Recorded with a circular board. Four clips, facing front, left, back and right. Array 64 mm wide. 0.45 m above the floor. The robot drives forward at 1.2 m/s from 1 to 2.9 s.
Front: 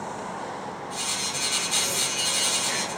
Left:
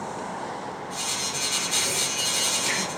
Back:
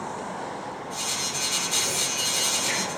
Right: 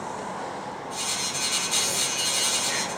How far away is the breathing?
About 3 m.